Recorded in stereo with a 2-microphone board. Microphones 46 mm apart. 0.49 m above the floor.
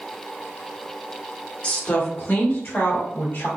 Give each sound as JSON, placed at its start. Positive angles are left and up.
{"t": 1.6, "sound": "a woman speaking", "side_deg": 25, "distance_m": 1.1}